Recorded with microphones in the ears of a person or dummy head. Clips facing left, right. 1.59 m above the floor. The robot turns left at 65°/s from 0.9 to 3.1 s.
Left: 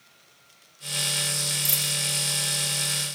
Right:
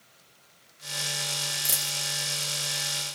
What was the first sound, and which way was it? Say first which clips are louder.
A dropped coin: left 4 dB; 5° right (ahead or behind).